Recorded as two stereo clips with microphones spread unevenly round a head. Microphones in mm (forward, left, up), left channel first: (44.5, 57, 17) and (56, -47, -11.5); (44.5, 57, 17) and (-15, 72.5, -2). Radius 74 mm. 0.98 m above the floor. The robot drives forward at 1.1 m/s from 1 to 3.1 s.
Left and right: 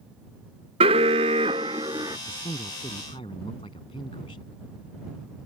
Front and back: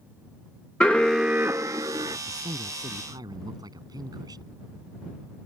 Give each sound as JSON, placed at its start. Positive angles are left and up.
{"t": 0.8, "sound": "an alarm", "azimuth_deg": -100}
{"t": 2.3, "sound": "a man speaking", "azimuth_deg": 150}